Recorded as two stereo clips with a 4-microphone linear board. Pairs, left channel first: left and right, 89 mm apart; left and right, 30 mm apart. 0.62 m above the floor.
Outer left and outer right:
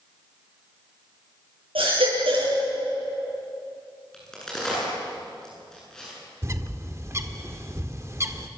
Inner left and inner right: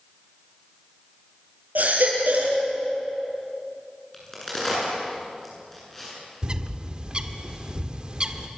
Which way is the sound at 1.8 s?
85° right.